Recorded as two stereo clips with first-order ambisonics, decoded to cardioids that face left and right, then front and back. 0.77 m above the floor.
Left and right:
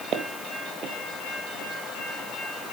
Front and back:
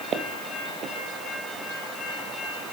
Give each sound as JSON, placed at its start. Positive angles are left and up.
{"t": 0.1, "sound": "footsteps", "azimuth_deg": -130, "distance_m": 1.3}